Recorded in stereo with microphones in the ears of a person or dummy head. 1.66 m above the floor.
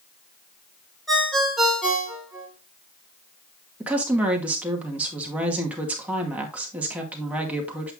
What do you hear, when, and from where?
1.1 s a ringtone: centre (ahead or behind), 2.5 m
3.8 s a woman speaking: 10° right (ahead or behind), 2 m